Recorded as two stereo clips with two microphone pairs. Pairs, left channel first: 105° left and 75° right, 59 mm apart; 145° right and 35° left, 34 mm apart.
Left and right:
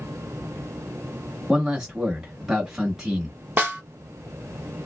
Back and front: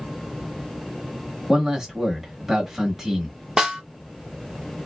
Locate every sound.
1.5 s a man speaking: 20° right, 1.0 m
3.6 s a snare drum: 30° right, 1.0 m